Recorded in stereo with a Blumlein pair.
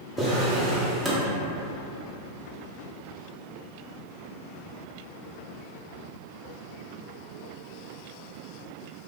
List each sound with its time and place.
0.2 s a drawer: 10° right, 0.8 m